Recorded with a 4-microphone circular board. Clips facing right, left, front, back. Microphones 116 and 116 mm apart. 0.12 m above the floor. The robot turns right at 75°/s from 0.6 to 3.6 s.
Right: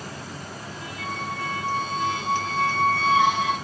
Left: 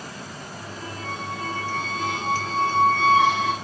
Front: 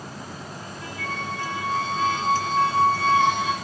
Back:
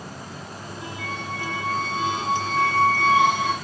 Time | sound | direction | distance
1.0 | a squeak | 15° left | 8 m